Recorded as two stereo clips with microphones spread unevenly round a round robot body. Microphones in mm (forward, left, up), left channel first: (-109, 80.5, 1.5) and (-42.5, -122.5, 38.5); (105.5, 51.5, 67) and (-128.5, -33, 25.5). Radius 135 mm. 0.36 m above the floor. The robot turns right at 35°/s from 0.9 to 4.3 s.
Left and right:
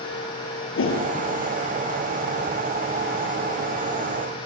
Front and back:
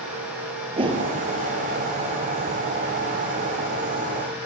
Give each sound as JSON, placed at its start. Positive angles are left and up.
{"t": 0.8, "sound": "a whoosh", "azimuth_deg": 130, "distance_m": 5.5}